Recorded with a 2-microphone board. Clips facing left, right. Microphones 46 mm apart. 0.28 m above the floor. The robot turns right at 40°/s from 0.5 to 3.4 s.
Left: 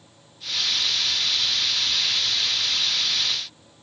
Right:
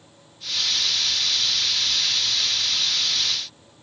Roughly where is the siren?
No siren in this recording.